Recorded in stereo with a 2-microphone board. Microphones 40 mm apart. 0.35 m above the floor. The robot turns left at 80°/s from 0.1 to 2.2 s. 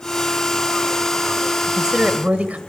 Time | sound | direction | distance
1.7 | a woman speaking | 10° right | 1.3 m